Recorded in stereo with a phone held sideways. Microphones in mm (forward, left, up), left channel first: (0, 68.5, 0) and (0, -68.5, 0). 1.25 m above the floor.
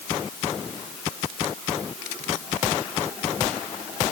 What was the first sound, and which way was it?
Only background noise.